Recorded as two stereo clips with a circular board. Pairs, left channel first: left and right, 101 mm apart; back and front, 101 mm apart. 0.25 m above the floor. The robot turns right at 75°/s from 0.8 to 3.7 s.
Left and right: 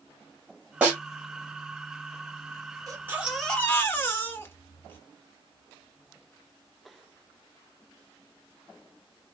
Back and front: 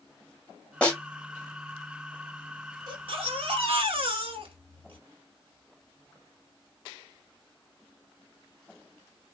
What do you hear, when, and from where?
0.8 s a snare drum: 125° right, 1.5 m; by 1.0 s 115° right, 1.5 m
2.9 s a baby crying: 40° right, 1.0 m; by 5.0 s 25° left, 1.0 m